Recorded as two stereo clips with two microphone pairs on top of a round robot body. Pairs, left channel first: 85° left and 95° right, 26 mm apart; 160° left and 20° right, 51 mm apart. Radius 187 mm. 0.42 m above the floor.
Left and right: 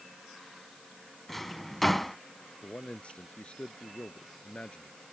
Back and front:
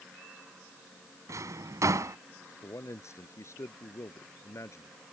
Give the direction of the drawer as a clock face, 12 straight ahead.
12 o'clock.